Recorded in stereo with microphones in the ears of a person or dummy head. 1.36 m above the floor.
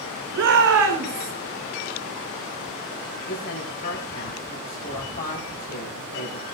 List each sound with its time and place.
0.3 s a shout: 70° right (ahead or behind), 6.5 m; by 1.3 s 80° right, 5.5 m
3.3 s a woman speaking: 45° left (ahead or behind), 9.5 m